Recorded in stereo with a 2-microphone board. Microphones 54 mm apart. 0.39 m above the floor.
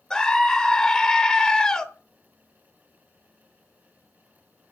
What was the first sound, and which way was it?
A scream, 10° left (ahead or behind).